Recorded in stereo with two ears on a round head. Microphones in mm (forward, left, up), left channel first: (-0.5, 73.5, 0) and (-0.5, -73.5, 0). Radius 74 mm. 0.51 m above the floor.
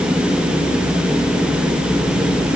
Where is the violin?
I don't hear a violin.